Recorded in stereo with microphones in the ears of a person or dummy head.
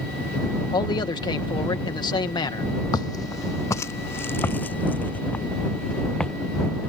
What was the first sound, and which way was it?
A man speaking, 20° left (ahead or behind).